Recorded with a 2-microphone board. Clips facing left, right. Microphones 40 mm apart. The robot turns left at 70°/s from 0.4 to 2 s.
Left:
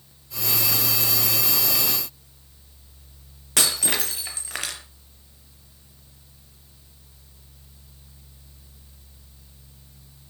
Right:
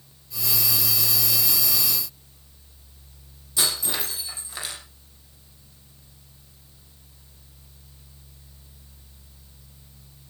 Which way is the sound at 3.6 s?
65° left (ahead or behind).